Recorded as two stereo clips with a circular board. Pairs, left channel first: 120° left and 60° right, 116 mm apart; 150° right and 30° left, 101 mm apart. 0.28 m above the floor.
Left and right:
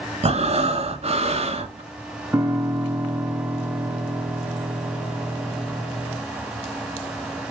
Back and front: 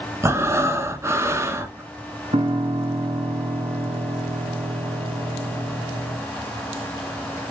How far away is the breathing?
About 0.9 m.